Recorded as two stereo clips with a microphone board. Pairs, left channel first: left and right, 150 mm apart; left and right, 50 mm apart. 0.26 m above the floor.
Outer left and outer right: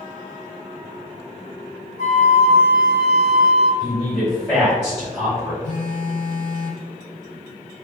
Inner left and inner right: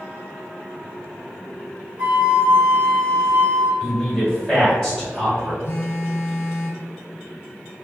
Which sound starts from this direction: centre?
A man speaking, at 3.8 s.